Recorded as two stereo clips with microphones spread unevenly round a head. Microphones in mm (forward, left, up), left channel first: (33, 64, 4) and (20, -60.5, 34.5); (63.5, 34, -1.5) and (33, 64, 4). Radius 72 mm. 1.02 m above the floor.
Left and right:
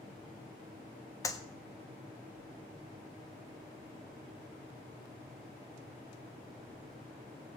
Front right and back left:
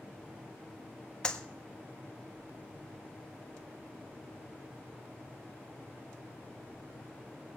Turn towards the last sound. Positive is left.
turn(degrees=25)